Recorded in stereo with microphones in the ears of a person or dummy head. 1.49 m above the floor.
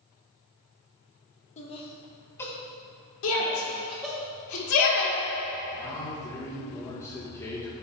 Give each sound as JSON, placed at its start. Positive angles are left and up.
{"t": 1.6, "sound": "laughter", "side_deg": 35, "distance_m": 0.8}
{"t": 3.2, "sound": "a shout", "side_deg": 75, "distance_m": 1.8}
{"t": 5.7, "sound": "a man speaking", "side_deg": 15, "distance_m": 1.7}